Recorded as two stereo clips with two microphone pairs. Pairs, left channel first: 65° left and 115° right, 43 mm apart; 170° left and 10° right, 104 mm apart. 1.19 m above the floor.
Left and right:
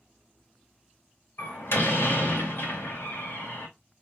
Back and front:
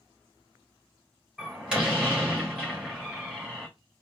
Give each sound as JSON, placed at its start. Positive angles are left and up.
{"t": 1.4, "sound": "a door slam", "azimuth_deg": 70, "distance_m": 3.0}